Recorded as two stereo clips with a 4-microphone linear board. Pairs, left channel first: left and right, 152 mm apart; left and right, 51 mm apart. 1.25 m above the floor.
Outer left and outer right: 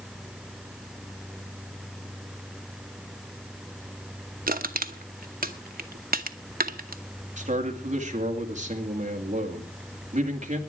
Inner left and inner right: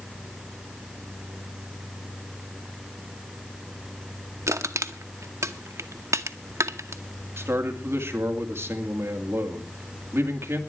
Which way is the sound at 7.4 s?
50° right (ahead or behind).